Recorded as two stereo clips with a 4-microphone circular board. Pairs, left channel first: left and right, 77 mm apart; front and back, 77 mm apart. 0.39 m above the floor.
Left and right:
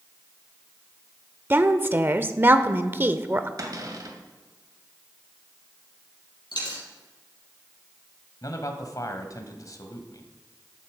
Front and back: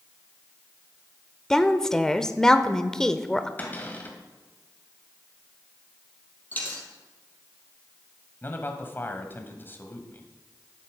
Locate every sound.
1.5 s a woman speaking: 70° right, 0.9 m
3.6 s a cupboard door: 65° right, 2 m
6.5 s a dropped coin: 70° left, 4.5 m
8.4 s a man speaking: 60° left, 1.9 m